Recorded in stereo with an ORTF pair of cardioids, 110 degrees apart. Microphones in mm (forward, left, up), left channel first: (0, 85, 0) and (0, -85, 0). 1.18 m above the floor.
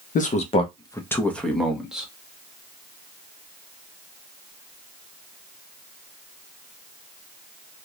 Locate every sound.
0.1 s a man speaking: 60° left, 0.9 m; by 2.1 s 5° right, 1.8 m